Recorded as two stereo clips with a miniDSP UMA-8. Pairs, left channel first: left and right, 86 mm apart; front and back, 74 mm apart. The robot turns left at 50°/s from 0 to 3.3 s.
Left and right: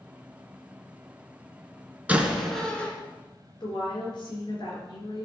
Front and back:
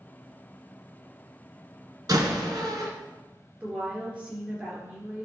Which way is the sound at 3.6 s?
110° left.